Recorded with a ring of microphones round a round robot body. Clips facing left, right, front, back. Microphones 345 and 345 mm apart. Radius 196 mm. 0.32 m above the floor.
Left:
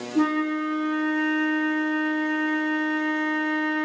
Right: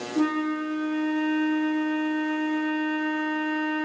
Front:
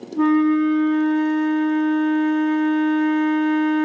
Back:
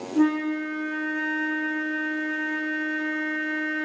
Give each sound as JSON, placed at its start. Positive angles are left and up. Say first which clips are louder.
{"t": 0.1, "sound": "a flute", "louder": "left 2 dB, front 6 dB", "azimuth_deg": 95, "distance_m": 0.9}